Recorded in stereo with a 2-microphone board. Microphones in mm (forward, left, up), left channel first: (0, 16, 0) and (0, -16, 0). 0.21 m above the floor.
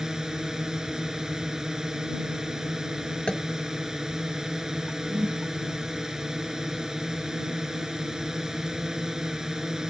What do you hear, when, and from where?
0.0 s a drone: 15° right (ahead or behind)
3.3 s tapping: 25° left (ahead or behind)
5.1 s a whoosh: 55° right (ahead or behind)